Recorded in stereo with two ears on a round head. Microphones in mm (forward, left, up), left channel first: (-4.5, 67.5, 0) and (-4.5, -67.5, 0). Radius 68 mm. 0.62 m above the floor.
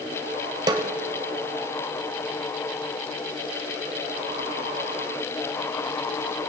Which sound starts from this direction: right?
A snare drum, at 0.7 s.